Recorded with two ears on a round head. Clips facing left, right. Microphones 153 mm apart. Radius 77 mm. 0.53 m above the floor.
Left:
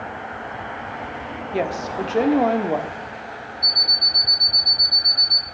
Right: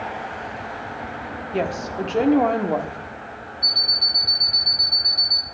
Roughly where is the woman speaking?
Centre.